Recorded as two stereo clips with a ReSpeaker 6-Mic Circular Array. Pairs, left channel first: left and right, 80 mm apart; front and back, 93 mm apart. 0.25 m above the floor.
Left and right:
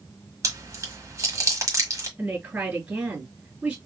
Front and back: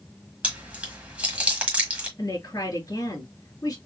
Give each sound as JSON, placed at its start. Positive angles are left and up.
{"t": 0.4, "sound": "chewing", "azimuth_deg": -110, "distance_m": 1.4}
{"t": 2.2, "sound": "a woman speaking", "azimuth_deg": -30, "distance_m": 2.0}